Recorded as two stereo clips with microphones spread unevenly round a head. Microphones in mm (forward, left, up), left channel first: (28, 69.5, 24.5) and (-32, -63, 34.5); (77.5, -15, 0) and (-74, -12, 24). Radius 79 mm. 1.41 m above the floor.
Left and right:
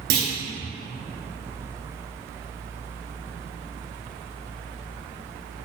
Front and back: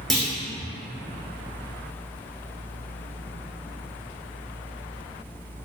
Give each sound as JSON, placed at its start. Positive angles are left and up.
{"t": 0.1, "sound": "a clunk", "azimuth_deg": -90, "distance_m": 3.5}